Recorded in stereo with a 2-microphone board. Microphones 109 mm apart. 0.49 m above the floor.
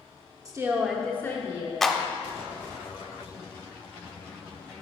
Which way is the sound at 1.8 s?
Centre (ahead or behind).